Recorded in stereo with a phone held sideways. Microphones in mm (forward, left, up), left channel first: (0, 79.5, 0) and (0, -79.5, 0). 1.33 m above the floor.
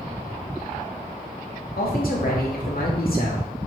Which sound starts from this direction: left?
A man speaking, at 1.8 s.